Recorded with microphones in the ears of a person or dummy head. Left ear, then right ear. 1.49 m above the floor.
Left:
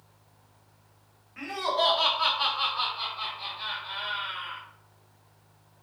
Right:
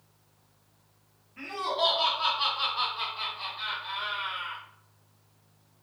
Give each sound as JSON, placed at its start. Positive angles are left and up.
{"t": 1.4, "sound": "laughter", "side_deg": 55, "distance_m": 1.0}